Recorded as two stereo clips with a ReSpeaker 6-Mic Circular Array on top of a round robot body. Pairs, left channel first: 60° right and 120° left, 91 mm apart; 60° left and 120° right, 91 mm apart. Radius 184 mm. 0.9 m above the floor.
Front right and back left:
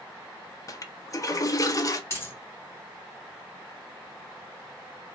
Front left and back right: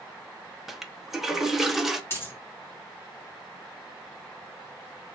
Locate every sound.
0.7 s a toilet flushing: 35° right, 0.8 m
2.1 s a dropped coin: straight ahead, 1.8 m